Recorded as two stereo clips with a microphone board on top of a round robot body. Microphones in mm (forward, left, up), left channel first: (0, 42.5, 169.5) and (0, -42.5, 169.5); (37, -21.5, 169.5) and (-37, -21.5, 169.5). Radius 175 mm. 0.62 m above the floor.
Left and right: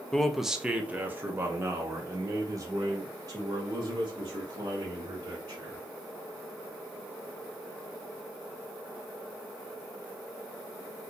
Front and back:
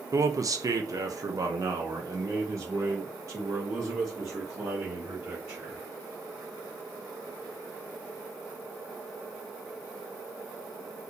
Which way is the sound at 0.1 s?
170° left.